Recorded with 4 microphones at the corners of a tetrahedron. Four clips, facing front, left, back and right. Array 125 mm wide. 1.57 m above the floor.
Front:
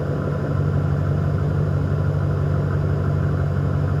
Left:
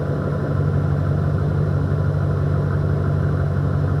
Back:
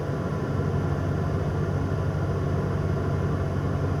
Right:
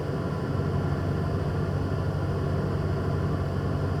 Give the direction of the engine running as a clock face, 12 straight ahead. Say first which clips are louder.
Left 7 dB, front 4 dB; 10 o'clock.